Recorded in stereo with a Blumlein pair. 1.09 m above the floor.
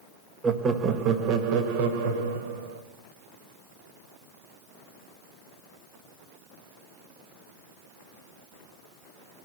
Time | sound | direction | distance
0.4 | laughter | 15° right | 1.3 m